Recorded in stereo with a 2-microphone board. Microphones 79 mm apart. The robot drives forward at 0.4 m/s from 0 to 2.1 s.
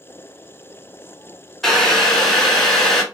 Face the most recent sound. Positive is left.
turn(degrees=5)  # may be behind; listen again after turning